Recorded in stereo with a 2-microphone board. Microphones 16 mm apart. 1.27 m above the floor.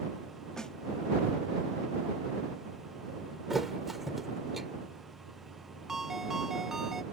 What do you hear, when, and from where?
0.6 s a snare drum: 50° left (ahead or behind)
3.5 s a thud: 5° right (ahead or behind)
5.9 s a ringtone: 20° right (ahead or behind)